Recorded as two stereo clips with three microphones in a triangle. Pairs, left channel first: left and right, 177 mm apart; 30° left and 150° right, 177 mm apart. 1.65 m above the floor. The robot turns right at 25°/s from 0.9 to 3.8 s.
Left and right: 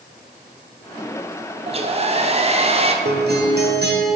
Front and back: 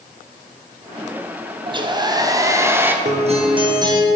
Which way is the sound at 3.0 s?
105° right.